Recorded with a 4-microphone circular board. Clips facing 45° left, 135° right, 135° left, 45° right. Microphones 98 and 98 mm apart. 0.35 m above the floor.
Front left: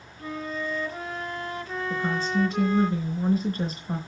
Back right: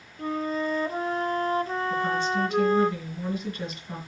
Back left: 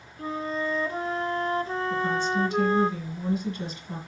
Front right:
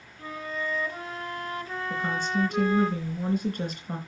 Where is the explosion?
No explosion in this recording.